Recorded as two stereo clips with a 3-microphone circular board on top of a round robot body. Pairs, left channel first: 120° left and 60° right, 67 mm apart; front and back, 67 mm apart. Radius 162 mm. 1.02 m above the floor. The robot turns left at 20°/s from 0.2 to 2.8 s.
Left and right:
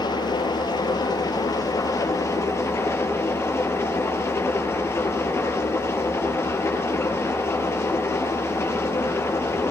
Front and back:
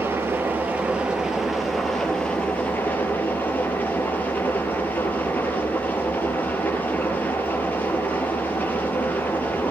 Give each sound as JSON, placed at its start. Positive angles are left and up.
{"t": 0.0, "sound": "an engine running", "azimuth_deg": 120, "distance_m": 6.0}